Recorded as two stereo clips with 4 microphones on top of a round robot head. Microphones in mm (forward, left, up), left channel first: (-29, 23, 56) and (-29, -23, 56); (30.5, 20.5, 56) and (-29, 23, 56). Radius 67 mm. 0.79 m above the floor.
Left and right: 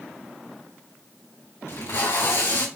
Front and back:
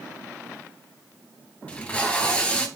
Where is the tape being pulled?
65° left, 3.5 m.